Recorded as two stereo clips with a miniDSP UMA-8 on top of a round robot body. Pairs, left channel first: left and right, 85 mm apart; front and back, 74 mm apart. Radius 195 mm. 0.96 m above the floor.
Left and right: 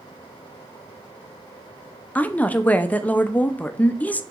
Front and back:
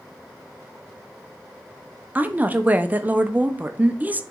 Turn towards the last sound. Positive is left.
turn(degrees=140)